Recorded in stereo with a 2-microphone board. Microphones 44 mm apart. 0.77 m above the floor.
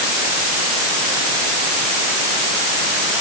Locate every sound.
Only background noise.